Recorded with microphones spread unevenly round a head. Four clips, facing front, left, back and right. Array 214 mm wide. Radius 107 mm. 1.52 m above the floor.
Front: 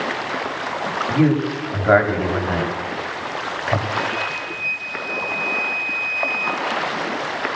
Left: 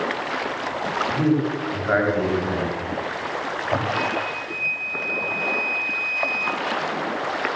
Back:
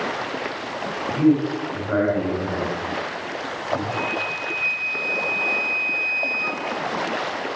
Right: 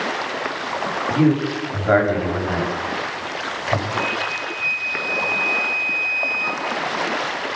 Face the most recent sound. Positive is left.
turn(degrees=145)